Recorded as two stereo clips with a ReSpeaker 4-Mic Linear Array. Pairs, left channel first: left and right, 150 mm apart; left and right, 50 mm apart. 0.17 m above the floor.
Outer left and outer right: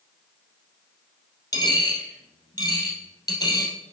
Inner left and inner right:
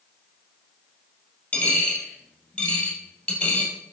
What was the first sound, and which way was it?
A dropped coin, 25° left (ahead or behind).